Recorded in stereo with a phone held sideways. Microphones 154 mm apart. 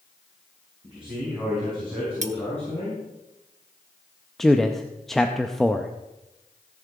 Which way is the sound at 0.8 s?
10° right (ahead or behind).